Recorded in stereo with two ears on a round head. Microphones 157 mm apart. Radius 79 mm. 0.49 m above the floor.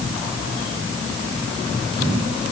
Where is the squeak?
I don't hear a squeak.